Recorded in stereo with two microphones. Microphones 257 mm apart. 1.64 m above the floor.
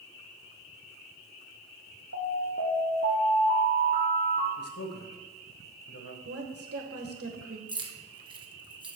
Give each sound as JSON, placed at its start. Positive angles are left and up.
{"t": 2.1, "sound": "an alarm", "side_deg": 60, "distance_m": 2.0}
{"t": 4.6, "sound": "a man speaking", "side_deg": 65, "distance_m": 1.3}
{"t": 6.2, "sound": "a woman speaking", "side_deg": -60, "distance_m": 1.5}
{"t": 7.7, "sound": "keys jangling", "side_deg": -20, "distance_m": 0.9}